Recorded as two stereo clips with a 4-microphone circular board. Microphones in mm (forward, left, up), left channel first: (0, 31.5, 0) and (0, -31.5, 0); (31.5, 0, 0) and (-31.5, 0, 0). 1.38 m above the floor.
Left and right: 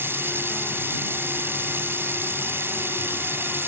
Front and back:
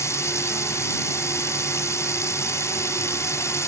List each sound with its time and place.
0.0 s running water: 40° right